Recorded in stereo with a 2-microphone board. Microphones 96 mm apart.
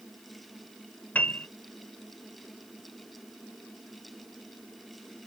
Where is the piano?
15° left (ahead or behind).